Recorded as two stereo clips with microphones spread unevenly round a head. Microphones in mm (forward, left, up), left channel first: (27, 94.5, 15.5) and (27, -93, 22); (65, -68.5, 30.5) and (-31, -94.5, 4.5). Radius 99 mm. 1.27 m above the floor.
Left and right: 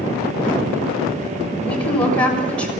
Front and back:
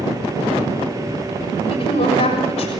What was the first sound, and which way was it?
A woman speaking, 25° left.